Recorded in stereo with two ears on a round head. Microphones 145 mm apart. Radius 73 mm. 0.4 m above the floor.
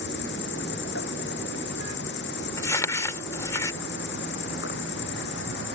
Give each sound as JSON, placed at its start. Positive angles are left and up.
{"t": 0.0, "sound": "an insect", "side_deg": 75}
{"t": 2.6, "sound": "crumpling", "side_deg": 20}